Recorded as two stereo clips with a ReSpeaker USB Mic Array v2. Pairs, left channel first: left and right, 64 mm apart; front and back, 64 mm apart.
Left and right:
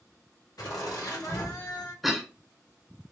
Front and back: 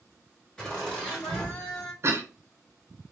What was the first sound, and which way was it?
Laughter, 80° left.